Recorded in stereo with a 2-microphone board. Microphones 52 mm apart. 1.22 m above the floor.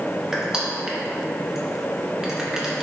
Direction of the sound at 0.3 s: 10° right (ahead or behind).